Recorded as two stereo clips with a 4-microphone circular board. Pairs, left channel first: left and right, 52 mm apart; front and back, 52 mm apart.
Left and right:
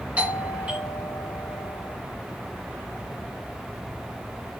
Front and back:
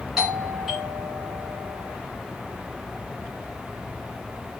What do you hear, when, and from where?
0.2 s a doorbell: 105° right, 2 m